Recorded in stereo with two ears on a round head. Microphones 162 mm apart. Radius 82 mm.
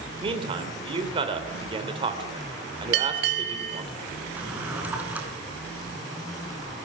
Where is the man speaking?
30° right (ahead or behind), 3 m.